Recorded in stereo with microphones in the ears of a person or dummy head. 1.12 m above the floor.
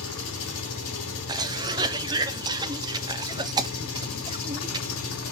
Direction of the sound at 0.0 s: 85° left.